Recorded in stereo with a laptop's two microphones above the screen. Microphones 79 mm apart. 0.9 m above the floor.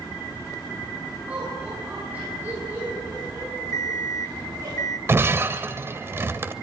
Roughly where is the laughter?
Centre.